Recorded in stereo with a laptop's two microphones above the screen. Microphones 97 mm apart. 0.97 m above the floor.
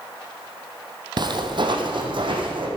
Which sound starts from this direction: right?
Footsteps, at 1.2 s.